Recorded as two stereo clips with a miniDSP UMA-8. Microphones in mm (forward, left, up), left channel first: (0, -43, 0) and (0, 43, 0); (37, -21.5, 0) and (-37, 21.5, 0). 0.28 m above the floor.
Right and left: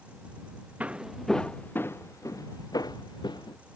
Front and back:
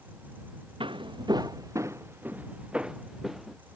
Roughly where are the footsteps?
Behind.